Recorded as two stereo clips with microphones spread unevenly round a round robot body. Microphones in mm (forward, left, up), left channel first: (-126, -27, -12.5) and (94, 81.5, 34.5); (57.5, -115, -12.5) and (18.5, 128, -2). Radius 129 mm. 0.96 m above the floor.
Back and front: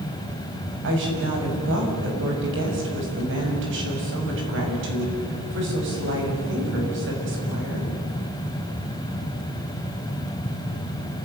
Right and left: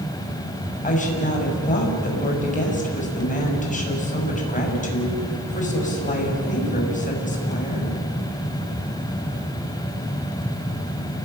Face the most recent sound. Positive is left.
turn(degrees=-20)